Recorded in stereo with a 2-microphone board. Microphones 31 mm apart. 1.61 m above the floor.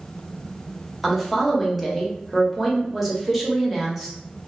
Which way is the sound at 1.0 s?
5° right (ahead or behind).